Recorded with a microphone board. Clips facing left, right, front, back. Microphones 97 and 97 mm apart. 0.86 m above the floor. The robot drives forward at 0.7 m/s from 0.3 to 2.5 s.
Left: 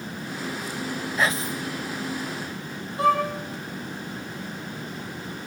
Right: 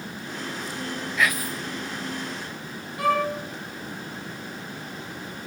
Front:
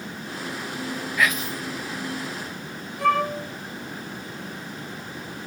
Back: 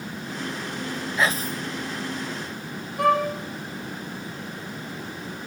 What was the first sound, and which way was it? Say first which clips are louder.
Whispering: even, even; 130° left.